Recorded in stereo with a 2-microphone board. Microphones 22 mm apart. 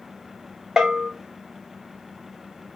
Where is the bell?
25° right (ahead or behind), 1.4 m.